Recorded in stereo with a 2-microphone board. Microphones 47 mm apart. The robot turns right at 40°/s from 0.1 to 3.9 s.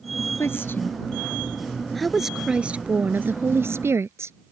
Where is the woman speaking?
115° left; by 4.3 s 105° right.